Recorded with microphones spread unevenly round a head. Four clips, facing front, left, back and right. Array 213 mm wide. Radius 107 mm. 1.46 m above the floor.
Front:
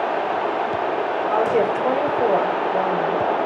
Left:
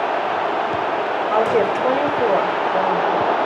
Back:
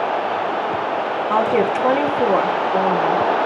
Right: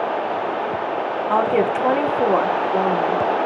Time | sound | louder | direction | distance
1.3 | a woman speaking | even, back 2 dB | 130° right | 1.5 m